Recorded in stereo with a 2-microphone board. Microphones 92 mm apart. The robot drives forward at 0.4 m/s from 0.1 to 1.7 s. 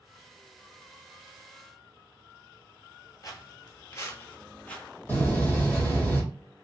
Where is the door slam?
20° left (ahead or behind), 1.0 m.